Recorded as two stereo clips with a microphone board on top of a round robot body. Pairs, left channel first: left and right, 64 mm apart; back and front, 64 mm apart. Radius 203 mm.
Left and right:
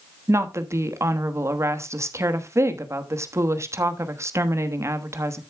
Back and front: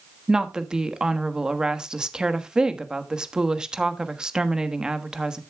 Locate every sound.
0.3 s a woman speaking: 75° right, 1.4 m